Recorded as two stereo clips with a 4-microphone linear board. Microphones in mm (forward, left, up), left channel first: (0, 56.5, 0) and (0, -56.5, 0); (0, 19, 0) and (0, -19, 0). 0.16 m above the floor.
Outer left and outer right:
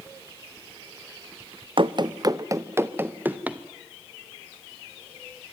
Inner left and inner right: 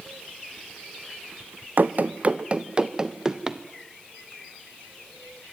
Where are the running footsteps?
50° right (ahead or behind), 0.7 m; by 3.6 s 10° right (ahead or behind), 1.4 m.